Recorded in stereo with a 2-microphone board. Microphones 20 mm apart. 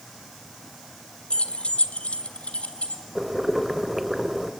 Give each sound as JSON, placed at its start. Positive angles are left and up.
{"t": 1.3, "sound": "keys jangling", "side_deg": 60, "distance_m": 1.4}
{"t": 3.1, "sound": "boiling", "side_deg": -15, "distance_m": 1.9}